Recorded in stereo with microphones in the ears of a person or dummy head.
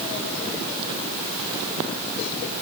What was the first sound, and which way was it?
Only background noise.